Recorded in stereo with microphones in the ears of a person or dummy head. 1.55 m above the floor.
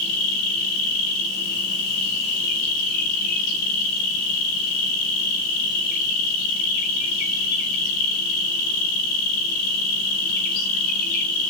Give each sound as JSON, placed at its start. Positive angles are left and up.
{"t": 0.0, "sound": "an insect", "side_deg": 60, "distance_m": 3.0}